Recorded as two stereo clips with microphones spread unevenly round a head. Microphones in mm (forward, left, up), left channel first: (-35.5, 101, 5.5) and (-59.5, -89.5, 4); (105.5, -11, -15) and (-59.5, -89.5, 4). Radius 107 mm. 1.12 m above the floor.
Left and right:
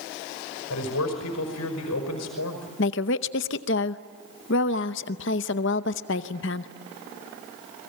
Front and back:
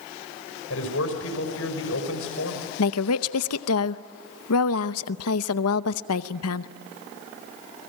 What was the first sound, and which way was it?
A man speaking, 60° left.